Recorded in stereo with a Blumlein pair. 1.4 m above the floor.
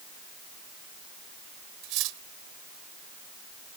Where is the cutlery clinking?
40° right.